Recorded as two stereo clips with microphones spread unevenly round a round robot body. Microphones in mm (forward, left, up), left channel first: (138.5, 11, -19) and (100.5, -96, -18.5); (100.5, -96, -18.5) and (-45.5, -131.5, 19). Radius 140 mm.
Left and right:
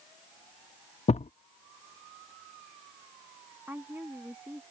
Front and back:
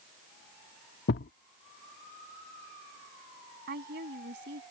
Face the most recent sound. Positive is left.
turn(degrees=170)